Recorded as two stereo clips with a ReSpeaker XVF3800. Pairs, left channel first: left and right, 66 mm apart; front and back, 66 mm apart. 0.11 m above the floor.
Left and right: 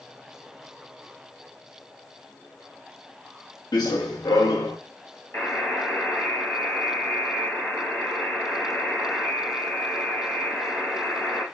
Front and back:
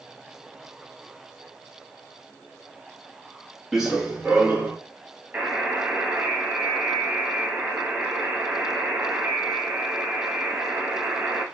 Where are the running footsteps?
95° left, 1.0 m; by 4.8 s 110° left, 1.7 m.